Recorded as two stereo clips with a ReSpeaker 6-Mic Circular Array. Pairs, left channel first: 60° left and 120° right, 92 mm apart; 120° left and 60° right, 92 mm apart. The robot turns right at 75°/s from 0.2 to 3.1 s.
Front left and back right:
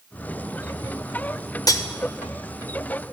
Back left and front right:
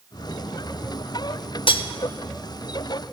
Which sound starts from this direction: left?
Cutlery clinking, at 1.7 s.